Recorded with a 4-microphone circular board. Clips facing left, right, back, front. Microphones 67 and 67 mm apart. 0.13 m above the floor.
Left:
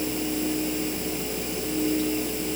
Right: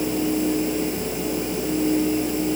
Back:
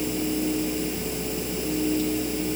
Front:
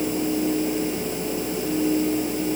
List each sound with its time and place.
Only background noise.